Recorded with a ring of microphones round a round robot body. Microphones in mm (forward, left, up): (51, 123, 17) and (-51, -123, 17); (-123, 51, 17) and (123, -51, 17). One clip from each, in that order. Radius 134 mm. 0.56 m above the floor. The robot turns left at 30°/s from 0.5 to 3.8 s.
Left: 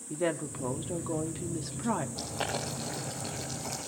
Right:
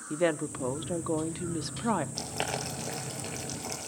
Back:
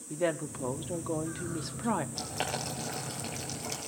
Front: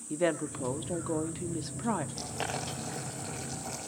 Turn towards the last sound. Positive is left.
turn(degrees=180)